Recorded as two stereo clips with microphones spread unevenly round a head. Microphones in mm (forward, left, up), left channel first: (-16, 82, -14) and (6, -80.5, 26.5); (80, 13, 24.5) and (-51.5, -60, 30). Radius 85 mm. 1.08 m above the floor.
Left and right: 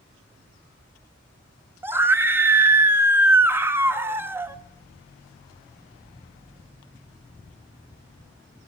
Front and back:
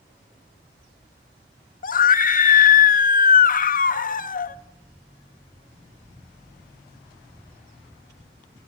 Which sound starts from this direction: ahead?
A scream, at 1.8 s.